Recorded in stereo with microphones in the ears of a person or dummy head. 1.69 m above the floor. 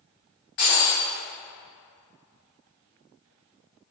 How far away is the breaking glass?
About 1.0 m.